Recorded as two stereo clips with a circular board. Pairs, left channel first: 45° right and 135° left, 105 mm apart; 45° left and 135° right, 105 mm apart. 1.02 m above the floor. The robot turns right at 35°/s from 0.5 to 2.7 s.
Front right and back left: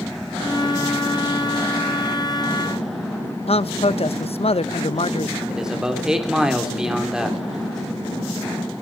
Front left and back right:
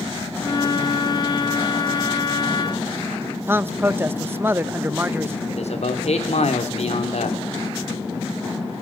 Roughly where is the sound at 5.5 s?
Ahead left.